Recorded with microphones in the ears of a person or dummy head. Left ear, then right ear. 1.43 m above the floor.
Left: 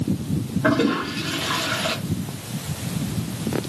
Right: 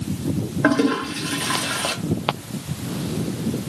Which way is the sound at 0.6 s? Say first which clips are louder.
Right 1 dB; 45° right (ahead or behind).